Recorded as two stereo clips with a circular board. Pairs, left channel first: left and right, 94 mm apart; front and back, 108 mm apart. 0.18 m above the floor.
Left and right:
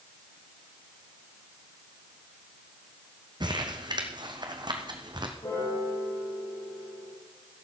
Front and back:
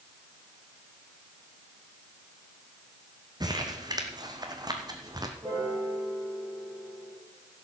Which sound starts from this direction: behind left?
A piano, at 5.4 s.